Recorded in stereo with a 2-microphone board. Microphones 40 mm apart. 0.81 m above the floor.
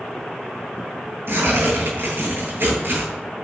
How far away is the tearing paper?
About 9 m.